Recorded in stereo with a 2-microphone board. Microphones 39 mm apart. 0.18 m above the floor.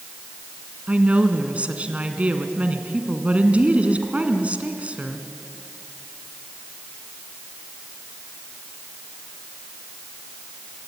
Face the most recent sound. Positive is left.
turn(degrees=-35)  # may be behind; listen again after turning